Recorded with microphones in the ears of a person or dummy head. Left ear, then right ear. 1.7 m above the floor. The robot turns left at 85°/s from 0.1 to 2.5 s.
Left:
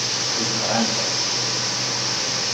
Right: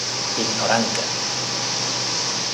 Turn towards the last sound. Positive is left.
turn(degrees=90)